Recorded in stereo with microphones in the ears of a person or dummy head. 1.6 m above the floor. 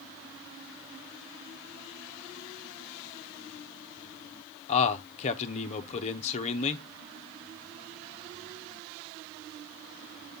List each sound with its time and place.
4.7 s a man speaking: 35° left (ahead or behind), 0.9 m